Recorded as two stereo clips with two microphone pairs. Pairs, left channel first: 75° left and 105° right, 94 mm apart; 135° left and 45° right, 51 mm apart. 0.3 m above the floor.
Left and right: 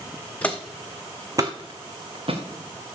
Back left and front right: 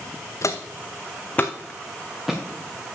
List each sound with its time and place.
0.4 s footsteps: 150° left, 1.2 m; by 2.4 s 130° right, 1.9 m